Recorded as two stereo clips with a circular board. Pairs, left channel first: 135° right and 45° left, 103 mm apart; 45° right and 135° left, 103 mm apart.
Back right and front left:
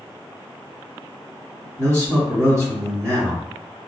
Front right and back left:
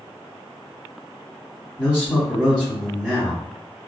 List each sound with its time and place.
1.8 s a man speaking: 65° left, 1.6 m